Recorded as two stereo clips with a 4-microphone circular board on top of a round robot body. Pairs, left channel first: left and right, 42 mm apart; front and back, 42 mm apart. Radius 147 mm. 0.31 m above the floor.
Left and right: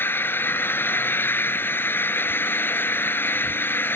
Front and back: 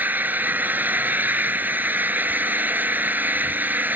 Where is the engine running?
135° left.